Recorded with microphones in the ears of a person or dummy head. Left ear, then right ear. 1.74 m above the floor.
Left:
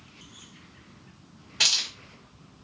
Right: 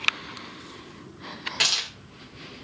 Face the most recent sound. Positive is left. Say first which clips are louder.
# left 1 dB
turn(degrees=-45)  # may be behind; listen again after turning